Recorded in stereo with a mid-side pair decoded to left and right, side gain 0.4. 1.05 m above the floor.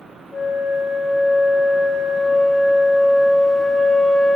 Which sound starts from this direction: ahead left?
A flute, at 0.3 s.